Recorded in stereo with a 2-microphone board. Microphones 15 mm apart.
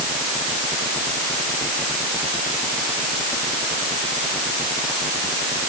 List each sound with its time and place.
Only background noise.